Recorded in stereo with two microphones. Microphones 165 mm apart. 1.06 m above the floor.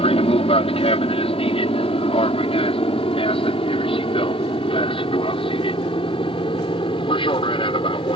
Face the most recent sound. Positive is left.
turn(degrees=30)  # may be behind; listen again after turning